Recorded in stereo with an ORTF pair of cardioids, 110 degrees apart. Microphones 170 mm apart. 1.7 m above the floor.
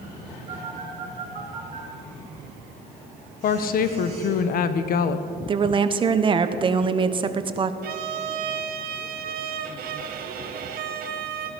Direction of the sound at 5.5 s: 30° right.